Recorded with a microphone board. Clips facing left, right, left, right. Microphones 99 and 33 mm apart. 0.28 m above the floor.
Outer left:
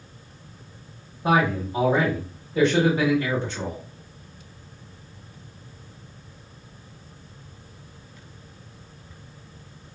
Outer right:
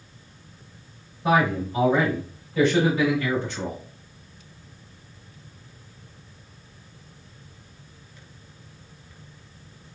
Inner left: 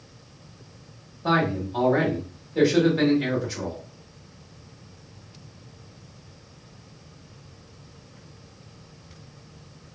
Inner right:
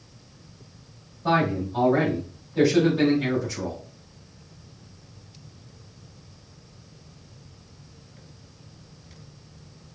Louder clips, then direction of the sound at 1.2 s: Even, even; 30° left (ahead or behind).